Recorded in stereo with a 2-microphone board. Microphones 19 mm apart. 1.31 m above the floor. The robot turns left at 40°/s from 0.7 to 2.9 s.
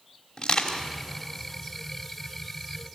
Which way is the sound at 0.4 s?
30° left (ahead or behind).